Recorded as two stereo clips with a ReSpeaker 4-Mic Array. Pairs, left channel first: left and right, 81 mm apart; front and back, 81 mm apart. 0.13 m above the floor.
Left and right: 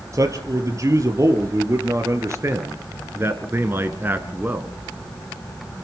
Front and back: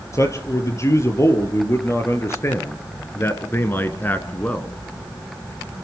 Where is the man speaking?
45° right, 3.5 m; by 4.7 s 50° right, 1.8 m.